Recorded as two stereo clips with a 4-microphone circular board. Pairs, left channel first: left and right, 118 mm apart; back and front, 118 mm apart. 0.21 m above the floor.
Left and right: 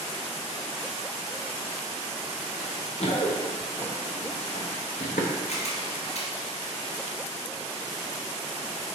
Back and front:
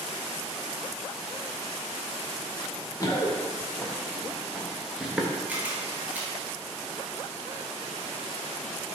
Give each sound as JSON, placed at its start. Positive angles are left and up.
{"t": 2.6, "sound": "running footsteps", "azimuth_deg": 120, "distance_m": 2.5}
{"t": 5.5, "sound": "a camera shutter", "azimuth_deg": 75, "distance_m": 2.0}